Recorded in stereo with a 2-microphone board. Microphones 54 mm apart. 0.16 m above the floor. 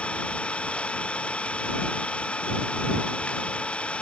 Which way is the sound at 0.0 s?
20° left (ahead or behind).